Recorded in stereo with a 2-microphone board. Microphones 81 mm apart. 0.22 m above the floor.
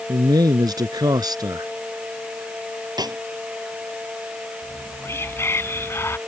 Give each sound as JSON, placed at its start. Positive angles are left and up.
{"t": 0.1, "sound": "a man speaking", "side_deg": -55}
{"t": 3.0, "sound": "a snare drum", "side_deg": -60}
{"t": 4.6, "sound": "whispering", "side_deg": 35}